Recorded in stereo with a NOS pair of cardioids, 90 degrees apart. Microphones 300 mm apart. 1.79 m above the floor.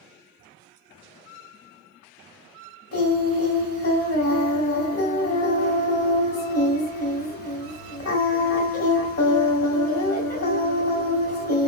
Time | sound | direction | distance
2.9 | singing | 45° left | 1.6 m